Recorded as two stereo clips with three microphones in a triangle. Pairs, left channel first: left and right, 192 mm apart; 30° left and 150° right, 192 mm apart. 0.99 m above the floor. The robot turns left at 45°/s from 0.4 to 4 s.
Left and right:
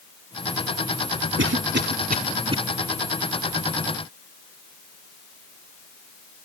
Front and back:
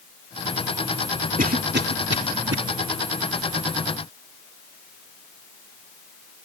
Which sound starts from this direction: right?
A cough, at 1.4 s.